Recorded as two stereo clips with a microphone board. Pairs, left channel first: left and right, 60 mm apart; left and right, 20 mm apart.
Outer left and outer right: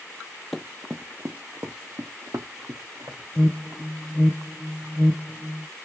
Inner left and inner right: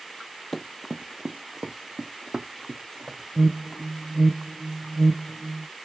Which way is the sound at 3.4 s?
15° left (ahead or behind).